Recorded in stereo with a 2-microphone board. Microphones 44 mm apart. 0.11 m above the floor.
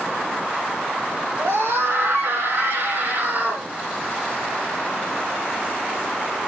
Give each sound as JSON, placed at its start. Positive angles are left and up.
{"t": 1.4, "sound": "a scream", "side_deg": -65, "distance_m": 5.0}